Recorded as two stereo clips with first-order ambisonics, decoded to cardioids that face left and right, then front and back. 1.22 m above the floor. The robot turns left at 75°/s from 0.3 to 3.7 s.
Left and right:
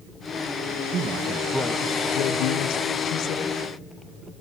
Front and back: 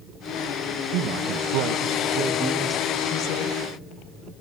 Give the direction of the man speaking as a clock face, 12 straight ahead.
5 o'clock.